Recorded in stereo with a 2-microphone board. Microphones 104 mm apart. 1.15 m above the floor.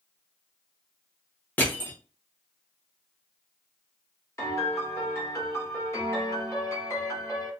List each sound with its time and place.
1.6 s crushing: 15° left (ahead or behind), 0.8 m
4.4 s a piano: 25° left (ahead or behind), 1.0 m